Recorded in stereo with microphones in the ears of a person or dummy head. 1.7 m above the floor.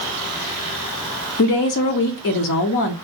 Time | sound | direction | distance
1.4 | a woman speaking | 55° left (ahead or behind) | 0.5 m